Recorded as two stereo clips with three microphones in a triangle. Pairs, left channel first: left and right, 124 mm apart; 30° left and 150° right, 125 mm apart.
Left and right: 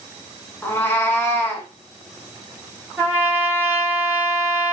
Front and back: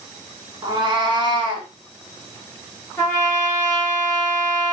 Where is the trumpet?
30° right, 1.3 m.